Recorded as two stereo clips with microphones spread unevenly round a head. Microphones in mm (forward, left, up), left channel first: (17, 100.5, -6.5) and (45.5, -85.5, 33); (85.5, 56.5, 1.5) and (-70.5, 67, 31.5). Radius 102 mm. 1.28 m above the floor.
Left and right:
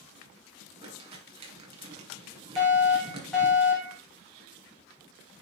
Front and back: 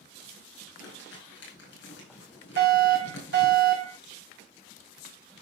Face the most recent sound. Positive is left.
turn(degrees=-175)